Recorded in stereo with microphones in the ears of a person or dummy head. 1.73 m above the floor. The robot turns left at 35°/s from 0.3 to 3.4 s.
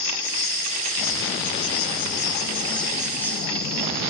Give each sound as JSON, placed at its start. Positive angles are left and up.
{"t": 0.0, "sound": "an insect", "azimuth_deg": 110, "distance_m": 2.0}